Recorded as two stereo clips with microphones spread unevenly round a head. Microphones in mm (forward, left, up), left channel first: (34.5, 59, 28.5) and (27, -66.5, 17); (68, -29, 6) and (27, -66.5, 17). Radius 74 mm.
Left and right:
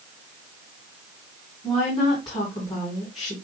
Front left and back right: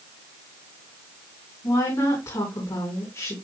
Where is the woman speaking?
35° left, 5 m.